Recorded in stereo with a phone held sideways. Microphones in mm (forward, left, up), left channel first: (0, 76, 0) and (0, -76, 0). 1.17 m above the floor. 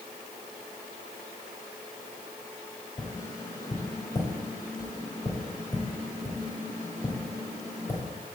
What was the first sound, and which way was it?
Tapping, 20° left (ahead or behind).